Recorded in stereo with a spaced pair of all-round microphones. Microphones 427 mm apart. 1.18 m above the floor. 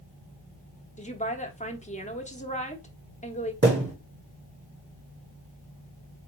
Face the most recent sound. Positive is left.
turn(degrees=-30)  # may be behind; listen again after turning